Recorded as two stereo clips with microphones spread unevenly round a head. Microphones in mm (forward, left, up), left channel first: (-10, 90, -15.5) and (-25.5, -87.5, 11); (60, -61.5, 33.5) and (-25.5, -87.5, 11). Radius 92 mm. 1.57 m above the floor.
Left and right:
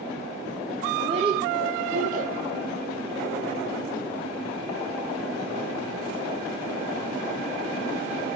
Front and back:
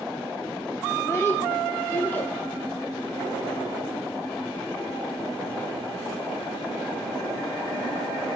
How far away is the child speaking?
About 1.2 m.